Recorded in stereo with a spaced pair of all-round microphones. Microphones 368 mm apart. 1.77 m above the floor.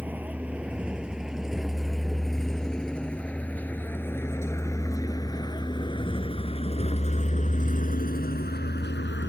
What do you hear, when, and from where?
0.0 s a vehicle: 5° right (ahead or behind); by 9.3 s 30° left (ahead or behind)